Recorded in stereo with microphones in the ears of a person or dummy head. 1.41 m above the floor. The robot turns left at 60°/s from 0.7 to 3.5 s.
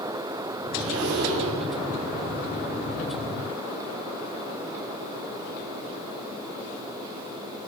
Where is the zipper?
100° right, 5.5 m; by 1.6 s 150° right, 5.5 m.